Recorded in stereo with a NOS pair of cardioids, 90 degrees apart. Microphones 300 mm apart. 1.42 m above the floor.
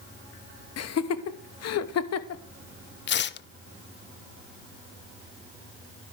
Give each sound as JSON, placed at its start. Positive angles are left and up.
{"t": 0.8, "sound": "laughter", "azimuth_deg": 60, "distance_m": 1.2}
{"t": 3.1, "sound": "tearing paper", "azimuth_deg": 40, "distance_m": 0.5}